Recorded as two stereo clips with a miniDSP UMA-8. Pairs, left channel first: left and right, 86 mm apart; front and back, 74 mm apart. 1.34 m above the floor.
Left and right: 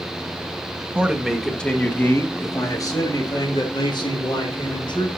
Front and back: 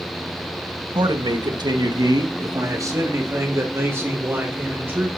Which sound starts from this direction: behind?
A man speaking, at 0.9 s.